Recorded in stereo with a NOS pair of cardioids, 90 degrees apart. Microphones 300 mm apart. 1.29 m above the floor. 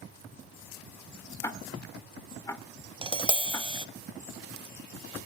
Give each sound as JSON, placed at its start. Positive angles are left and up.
{"t": 1.4, "sound": "ticking", "azimuth_deg": 10, "distance_m": 2.5}
{"t": 3.0, "sound": "tapping", "azimuth_deg": -15, "distance_m": 0.9}